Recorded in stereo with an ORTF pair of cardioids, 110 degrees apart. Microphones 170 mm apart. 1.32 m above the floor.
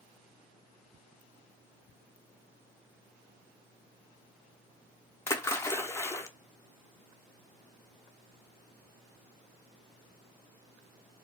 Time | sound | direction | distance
5.3 | a splash | 15° left | 0.5 m